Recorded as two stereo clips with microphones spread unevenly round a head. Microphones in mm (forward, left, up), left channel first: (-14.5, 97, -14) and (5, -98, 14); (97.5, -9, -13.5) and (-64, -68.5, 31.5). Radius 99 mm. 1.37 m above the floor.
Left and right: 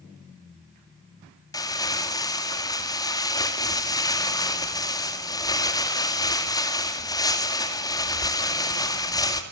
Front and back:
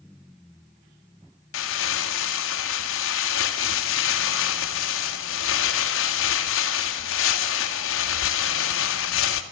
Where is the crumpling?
20° left, 2 m.